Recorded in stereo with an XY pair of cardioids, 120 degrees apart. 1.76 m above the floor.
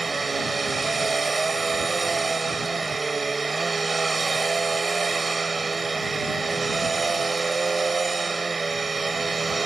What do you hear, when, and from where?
0.0 s a machine running: 25° right